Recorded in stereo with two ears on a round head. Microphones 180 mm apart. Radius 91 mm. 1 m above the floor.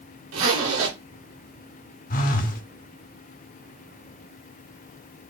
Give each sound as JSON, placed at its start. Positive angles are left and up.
{"t": 0.3, "sound": "a zipper", "side_deg": -75, "distance_m": 2.0}
{"t": 2.1, "sound": "a phone buzzing", "side_deg": 45, "distance_m": 0.8}